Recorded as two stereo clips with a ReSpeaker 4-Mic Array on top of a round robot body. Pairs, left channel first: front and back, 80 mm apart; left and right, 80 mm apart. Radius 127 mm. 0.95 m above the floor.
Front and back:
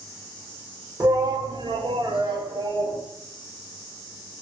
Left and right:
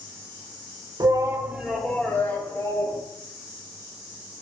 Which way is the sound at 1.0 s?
130° right.